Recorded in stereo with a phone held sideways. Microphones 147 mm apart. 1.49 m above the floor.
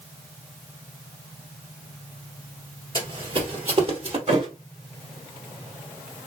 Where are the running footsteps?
35° right (ahead or behind), 1.7 m; by 4.2 s 45° right (ahead or behind), 2 m.